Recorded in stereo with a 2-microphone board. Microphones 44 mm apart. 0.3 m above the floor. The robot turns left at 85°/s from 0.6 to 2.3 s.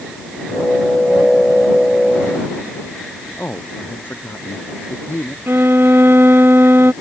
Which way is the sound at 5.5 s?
60° right (ahead or behind).